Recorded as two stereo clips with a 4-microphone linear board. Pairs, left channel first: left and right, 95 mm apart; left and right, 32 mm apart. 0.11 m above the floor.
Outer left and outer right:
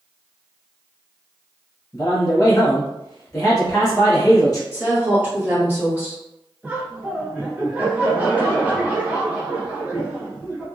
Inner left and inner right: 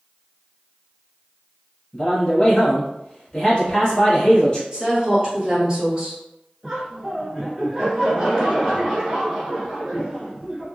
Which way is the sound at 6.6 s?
20° right (ahead or behind).